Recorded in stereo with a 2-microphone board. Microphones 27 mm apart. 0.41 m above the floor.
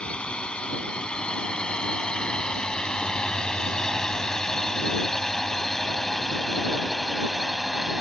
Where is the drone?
45° left (ahead or behind); by 8.0 s 10° right (ahead or behind).